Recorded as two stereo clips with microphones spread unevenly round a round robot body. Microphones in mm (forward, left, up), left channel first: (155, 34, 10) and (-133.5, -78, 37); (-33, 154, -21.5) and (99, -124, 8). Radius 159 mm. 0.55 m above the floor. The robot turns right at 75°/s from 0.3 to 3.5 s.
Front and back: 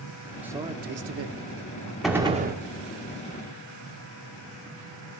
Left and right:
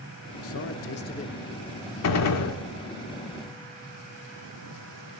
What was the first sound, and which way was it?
A man speaking, 110° left.